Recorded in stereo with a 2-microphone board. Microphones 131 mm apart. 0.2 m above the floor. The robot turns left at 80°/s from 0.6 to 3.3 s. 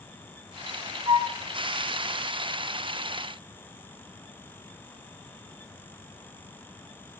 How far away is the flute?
About 0.5 m.